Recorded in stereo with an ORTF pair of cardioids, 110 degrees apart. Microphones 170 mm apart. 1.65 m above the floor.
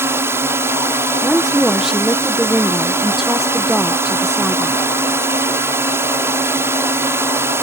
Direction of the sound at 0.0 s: 15° right.